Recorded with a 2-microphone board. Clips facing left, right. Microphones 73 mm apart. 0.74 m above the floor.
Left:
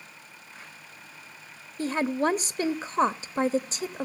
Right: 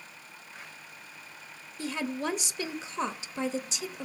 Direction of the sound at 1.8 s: 45° left (ahead or behind).